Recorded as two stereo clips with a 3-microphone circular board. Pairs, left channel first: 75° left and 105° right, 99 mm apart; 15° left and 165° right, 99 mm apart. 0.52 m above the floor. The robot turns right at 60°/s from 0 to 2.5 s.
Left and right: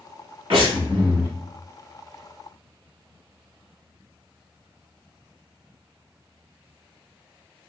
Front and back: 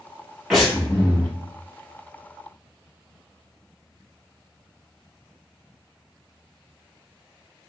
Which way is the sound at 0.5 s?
80° right.